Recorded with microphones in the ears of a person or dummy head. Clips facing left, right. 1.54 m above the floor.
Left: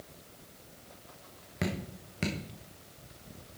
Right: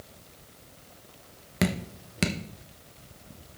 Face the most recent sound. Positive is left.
turn(degrees=-65)  # may be behind; listen again after turning